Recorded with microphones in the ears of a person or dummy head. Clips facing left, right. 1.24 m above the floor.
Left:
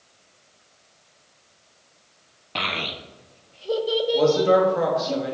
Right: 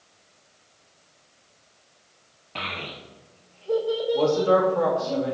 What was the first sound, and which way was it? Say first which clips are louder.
A child speaking: left 5 dB; 55° left (ahead or behind).